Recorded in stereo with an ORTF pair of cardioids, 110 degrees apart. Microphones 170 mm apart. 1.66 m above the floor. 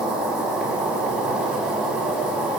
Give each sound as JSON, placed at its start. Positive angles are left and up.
{"t": 0.0, "sound": "an insect", "azimuth_deg": -5, "distance_m": 4.5}